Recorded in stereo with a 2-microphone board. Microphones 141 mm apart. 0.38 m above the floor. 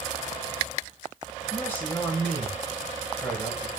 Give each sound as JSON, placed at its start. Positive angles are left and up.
{"t": 1.5, "sound": "a man speaking", "side_deg": 15, "distance_m": 5.0}